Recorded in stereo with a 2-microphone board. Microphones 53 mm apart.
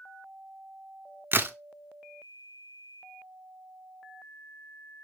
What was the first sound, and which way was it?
A crack, 40° right (ahead or behind).